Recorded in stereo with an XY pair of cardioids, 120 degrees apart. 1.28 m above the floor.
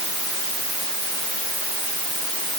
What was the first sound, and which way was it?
Only background noise.